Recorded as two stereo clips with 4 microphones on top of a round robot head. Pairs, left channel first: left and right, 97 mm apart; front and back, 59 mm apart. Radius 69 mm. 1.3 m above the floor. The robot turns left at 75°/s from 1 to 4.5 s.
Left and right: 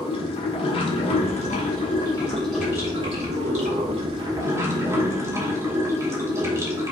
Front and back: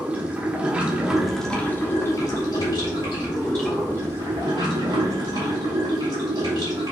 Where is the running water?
115° left, 1.2 m; by 6.9 s 150° right, 1.2 m.